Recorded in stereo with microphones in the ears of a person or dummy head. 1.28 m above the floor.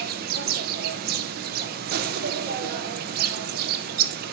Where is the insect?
55° right (ahead or behind), 0.9 m.